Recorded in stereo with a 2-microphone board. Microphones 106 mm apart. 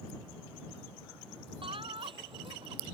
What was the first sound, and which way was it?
Laughter, 55° right (ahead or behind).